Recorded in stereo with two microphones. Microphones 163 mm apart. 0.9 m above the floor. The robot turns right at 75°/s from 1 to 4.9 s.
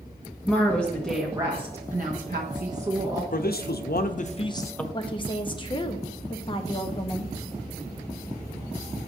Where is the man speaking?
60° left, 0.8 m; by 4.8 s 175° left, 0.8 m.